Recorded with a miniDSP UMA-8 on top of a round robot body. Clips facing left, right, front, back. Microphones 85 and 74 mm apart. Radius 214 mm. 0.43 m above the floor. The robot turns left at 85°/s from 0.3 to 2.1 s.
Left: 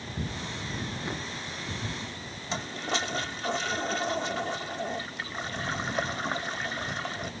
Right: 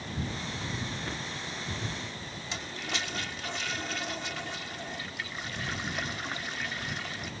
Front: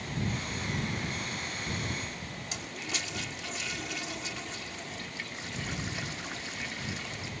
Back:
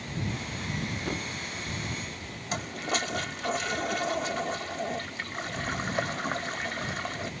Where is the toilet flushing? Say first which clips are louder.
Left 6 dB, back 10 dB; 145° left.